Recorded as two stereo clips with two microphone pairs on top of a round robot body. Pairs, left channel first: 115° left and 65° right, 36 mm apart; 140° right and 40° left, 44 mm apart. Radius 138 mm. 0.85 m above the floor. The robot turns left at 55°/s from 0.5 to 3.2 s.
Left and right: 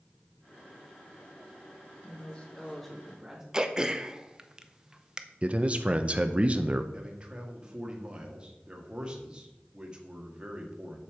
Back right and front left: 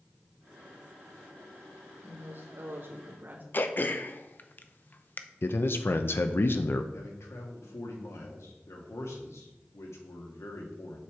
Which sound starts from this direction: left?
A woman speaking, at 2.0 s.